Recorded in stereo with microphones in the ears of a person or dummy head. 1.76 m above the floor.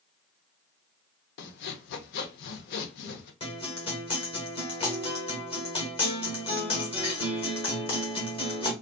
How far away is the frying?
I don't hear frying.